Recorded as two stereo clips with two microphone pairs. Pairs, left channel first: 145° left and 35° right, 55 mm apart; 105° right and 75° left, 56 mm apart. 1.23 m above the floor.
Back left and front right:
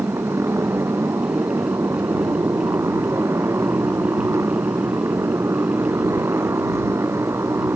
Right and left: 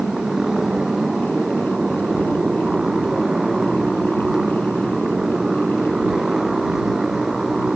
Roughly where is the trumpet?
I don't hear a trumpet.